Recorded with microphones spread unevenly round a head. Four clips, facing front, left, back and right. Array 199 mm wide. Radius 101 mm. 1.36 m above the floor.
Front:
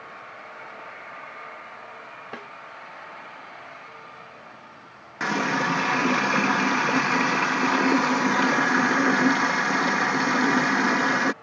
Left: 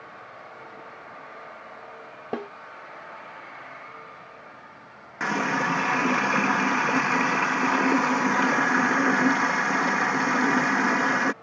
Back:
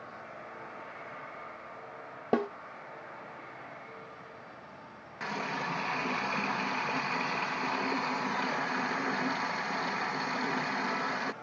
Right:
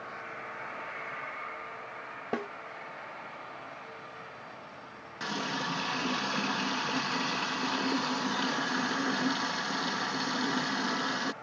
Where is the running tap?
20° left.